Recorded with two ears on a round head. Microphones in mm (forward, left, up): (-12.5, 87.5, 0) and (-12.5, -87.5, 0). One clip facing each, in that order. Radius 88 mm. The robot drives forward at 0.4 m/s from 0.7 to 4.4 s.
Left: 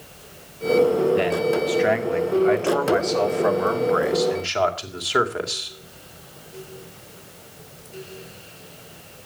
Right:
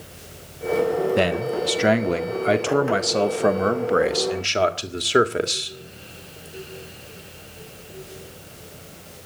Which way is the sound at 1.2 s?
55° right (ahead or behind).